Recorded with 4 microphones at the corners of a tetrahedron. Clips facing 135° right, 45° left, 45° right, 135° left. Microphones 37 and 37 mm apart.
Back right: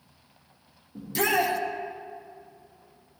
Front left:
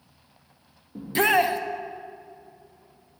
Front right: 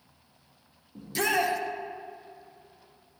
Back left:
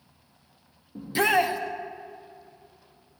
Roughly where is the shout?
Left.